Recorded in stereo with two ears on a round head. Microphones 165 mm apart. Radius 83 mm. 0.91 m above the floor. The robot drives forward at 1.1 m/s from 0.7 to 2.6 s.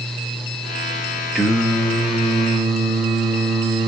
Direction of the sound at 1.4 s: Centre (ahead or behind).